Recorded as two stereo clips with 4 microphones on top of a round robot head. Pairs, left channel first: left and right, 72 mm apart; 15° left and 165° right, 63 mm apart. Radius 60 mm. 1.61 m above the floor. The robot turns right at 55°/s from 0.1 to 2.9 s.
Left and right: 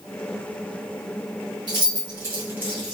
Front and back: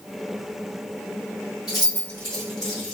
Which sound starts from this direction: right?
Keys jangling, at 1.7 s.